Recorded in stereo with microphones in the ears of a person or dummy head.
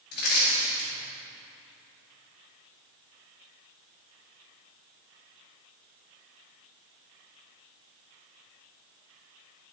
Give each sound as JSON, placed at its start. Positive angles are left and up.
{"t": 0.1, "sound": "crushing", "side_deg": 55, "distance_m": 2.0}